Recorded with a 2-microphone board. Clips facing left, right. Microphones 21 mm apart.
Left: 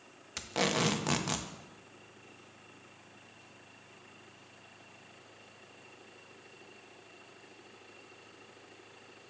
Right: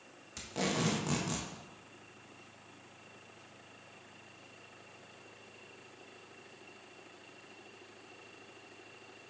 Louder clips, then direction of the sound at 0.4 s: Left 4 dB; 40° left (ahead or behind).